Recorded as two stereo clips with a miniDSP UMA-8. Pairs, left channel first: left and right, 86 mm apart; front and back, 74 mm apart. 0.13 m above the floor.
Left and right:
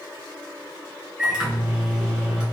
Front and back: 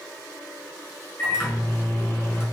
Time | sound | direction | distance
1.2 | a microwave | 20° right | 1.3 m